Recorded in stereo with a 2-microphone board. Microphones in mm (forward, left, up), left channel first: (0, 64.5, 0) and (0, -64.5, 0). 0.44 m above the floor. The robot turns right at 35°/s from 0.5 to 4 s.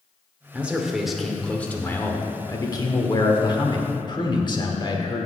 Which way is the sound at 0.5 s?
20° right.